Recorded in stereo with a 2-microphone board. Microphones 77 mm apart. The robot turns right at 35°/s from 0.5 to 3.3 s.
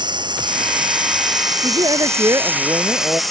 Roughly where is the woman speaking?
Right.